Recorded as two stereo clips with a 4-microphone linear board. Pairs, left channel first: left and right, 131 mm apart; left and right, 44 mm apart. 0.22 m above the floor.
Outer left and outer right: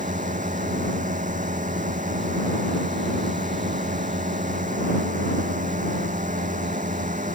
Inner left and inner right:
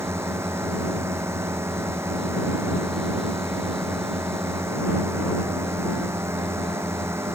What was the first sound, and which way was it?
A drone, 85° right.